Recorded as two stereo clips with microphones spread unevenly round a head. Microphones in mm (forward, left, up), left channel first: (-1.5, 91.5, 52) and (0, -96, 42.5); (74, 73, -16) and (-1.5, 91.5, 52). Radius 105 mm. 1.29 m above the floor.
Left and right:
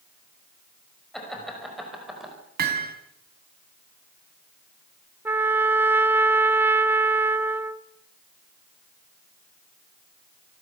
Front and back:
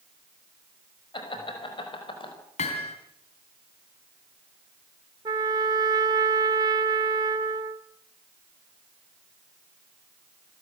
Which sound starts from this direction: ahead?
Laughter, at 1.1 s.